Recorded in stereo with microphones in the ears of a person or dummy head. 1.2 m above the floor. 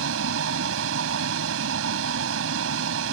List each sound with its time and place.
0.0 s a vehicle: 70° right (ahead or behind)